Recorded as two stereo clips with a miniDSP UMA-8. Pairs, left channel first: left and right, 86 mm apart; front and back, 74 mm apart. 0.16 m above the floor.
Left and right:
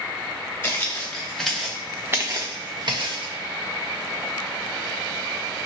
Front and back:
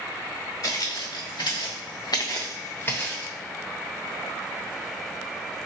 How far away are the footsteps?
About 1.4 m.